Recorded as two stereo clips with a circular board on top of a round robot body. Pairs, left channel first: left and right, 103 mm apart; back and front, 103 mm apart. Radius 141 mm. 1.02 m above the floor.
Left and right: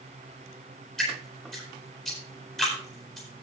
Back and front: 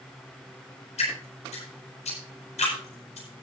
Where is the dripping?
175° left, 8.5 m.